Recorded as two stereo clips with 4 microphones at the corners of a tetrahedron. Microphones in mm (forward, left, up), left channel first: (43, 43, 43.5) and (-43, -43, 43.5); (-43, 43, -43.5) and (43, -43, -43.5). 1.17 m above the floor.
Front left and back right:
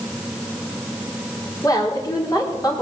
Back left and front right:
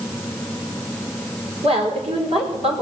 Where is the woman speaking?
15° right, 4 m.